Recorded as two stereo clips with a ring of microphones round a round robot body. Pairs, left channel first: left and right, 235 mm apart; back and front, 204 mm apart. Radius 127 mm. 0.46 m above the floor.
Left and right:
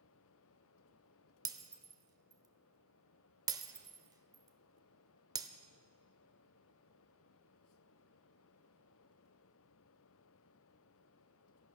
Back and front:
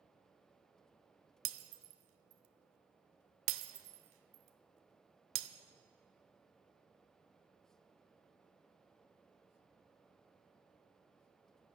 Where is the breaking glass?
15° right, 0.8 m.